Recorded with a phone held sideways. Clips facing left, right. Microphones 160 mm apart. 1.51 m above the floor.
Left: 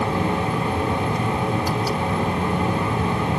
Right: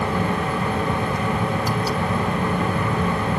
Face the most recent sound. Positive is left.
turn(degrees=25)  # may be behind; listen again after turning